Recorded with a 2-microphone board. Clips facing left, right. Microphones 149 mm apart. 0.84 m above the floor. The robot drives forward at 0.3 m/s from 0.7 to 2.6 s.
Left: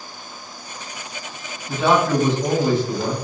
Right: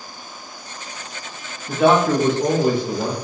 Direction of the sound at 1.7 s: 55° right (ahead or behind).